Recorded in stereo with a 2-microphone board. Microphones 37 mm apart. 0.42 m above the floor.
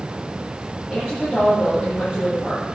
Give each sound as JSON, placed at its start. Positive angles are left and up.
{"t": 0.9, "sound": "a woman speaking", "side_deg": 10, "distance_m": 6.0}